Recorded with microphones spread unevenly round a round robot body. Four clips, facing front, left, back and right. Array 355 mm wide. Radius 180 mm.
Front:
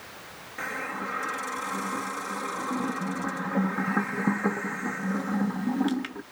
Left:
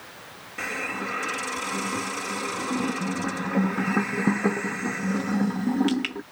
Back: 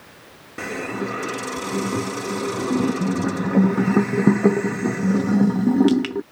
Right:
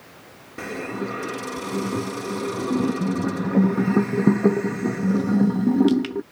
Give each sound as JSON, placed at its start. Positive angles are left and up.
{"t": 0.6, "sound": "a hiss", "azimuth_deg": -145}